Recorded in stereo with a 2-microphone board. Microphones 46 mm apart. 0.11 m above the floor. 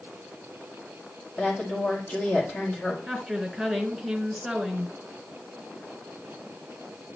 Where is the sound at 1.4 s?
40° left (ahead or behind), 5 m.